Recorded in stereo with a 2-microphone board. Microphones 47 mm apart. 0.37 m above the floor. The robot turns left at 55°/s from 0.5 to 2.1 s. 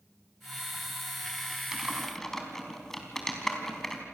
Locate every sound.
1.7 s typing on a keyboard: 10° right (ahead or behind), 3.5 m; by 4.0 s 10° left (ahead or behind), 3.5 m